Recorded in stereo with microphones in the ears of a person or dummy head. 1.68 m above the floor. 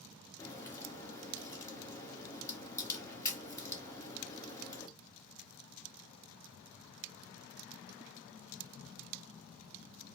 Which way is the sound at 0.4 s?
20° left (ahead or behind).